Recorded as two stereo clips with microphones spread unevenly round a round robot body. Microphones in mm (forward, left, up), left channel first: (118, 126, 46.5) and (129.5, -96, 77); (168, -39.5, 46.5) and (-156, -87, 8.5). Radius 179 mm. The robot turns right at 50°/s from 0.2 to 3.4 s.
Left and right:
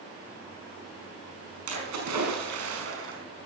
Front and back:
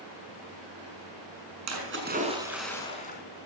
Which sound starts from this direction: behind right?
A splash, at 1.7 s.